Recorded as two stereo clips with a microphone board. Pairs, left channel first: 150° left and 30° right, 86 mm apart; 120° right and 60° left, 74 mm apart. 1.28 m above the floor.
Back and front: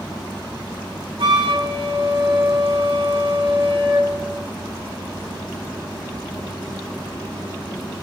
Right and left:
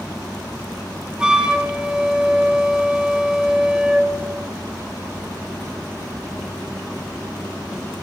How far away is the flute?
About 1.6 m.